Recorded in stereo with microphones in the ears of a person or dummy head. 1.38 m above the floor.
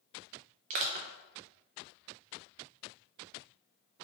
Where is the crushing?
40° right (ahead or behind), 0.5 m.